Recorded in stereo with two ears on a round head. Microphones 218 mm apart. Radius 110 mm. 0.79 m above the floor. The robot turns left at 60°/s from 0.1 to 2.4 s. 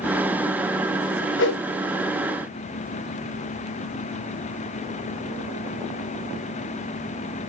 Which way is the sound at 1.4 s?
50° left (ahead or behind).